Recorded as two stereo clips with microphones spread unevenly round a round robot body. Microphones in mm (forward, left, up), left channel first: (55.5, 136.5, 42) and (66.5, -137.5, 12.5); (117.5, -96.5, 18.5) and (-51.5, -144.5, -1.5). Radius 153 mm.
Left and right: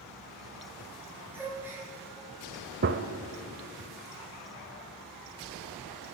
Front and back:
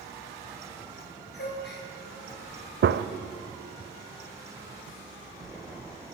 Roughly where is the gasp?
Ahead.